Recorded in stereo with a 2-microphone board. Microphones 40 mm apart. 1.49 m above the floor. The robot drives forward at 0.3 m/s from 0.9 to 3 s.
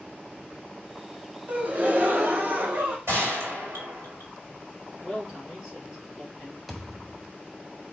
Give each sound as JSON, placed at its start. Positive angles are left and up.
{"t": 1.5, "sound": "a gasp", "side_deg": -45, "distance_m": 0.9}
{"t": 3.1, "sound": "a gunshot", "side_deg": -85, "distance_m": 1.9}
{"t": 5.0, "sound": "a man speaking", "side_deg": 0, "distance_m": 1.7}
{"t": 6.7, "sound": "a thud", "side_deg": -5, "distance_m": 1.3}